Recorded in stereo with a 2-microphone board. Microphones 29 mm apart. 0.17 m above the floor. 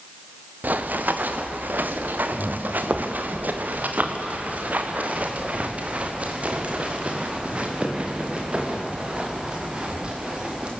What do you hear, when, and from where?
0.6 s running footsteps: 70° right (ahead or behind), 2 m; by 10.7 s 35° right (ahead or behind), 6 m